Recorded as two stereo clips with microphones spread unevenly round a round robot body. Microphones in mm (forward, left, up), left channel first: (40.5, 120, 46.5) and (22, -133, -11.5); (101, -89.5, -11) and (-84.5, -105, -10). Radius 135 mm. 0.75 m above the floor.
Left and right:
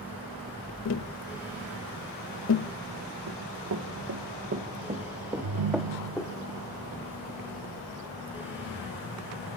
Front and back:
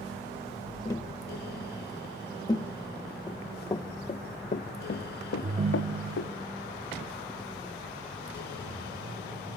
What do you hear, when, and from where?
0.8 s tapping: 70° left, 0.8 m
3.3 s running footsteps: 70° right, 3.5 m; by 6.3 s 15° left, 3 m
5.4 s a ringtone: 115° right, 0.7 m